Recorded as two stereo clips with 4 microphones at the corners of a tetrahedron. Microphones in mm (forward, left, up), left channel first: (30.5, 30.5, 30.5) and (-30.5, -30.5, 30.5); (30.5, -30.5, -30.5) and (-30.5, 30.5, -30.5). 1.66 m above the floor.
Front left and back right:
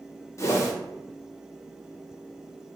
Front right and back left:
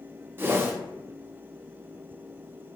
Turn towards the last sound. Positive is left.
turn(degrees=80)